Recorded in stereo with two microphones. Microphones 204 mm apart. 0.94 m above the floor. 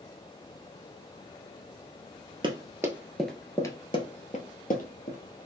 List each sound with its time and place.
2.4 s running footsteps: 25° right (ahead or behind), 1.0 m; by 5.2 s 50° left (ahead or behind), 1.4 m